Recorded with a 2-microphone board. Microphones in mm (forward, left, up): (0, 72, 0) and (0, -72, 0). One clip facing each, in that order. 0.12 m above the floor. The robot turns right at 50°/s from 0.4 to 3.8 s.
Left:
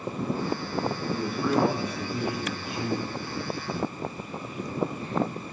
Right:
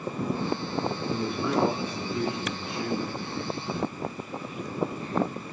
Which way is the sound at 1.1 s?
30° right.